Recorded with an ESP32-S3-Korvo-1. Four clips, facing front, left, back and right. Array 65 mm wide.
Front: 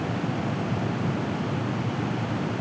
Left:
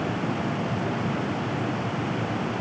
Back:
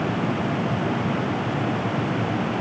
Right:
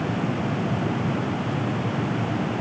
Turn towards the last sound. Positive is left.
No sound to turn to.